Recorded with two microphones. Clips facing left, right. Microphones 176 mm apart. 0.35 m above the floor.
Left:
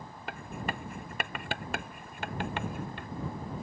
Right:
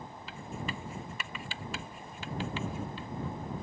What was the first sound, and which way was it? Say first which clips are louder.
Writing: left 3 dB; 60° left (ahead or behind).